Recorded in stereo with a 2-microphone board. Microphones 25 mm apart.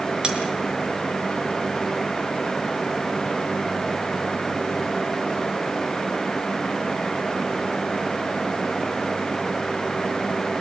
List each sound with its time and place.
0.2 s cutlery clinking: 40° right (ahead or behind), 4 m